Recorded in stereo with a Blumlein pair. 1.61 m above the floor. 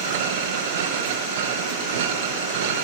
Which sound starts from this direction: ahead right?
A machine running, at 0.0 s.